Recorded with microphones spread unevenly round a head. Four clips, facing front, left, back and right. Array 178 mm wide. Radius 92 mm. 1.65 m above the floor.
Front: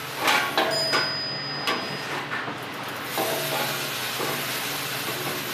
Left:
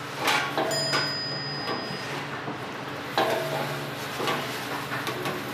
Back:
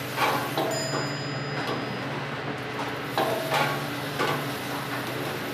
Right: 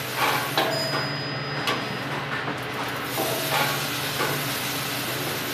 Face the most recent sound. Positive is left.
turn(degrees=115)